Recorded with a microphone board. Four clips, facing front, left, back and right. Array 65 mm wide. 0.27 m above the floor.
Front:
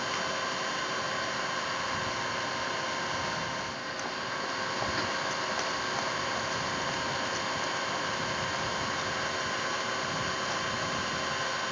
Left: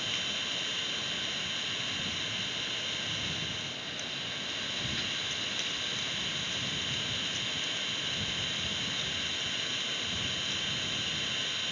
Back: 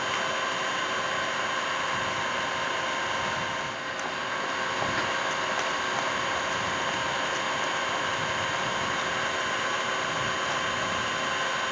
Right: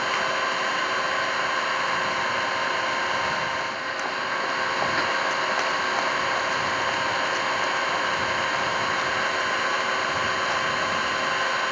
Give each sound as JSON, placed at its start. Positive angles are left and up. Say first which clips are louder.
{"t": 0.0, "sound": "an engine running", "louder": "right 14 dB, back 4 dB", "azimuth_deg": -100}